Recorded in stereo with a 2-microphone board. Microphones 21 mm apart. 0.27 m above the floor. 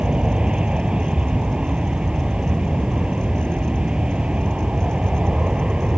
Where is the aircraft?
55° right (ahead or behind); by 6.0 s 60° right (ahead or behind).